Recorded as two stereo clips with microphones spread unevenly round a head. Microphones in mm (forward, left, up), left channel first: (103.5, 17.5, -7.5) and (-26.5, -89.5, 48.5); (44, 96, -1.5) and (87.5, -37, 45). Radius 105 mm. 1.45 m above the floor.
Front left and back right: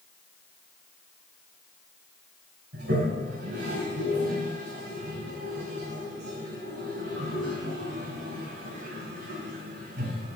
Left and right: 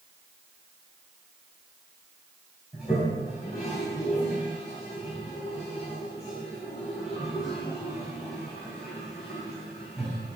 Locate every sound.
2.7 s a toilet flushing: 150° right, 3.5 m